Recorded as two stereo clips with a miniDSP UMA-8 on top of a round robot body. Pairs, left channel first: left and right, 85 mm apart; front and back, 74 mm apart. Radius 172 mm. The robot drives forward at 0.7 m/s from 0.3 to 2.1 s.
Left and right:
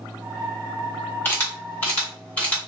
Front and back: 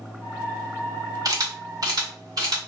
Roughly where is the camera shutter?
Behind left.